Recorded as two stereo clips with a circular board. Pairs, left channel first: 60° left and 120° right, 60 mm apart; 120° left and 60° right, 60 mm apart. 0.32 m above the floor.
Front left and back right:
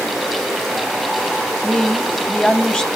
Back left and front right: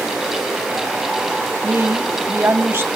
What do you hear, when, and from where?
1.6 s a woman speaking: 10° right, 1.8 m